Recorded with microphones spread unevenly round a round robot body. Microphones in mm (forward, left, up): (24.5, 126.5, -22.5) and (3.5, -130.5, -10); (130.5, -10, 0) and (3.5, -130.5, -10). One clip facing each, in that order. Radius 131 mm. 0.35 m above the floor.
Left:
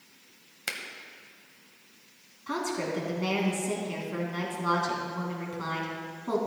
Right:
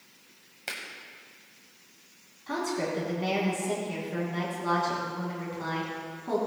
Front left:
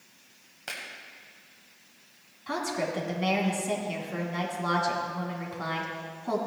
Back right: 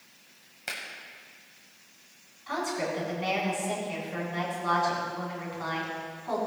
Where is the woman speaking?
15° left, 3 m.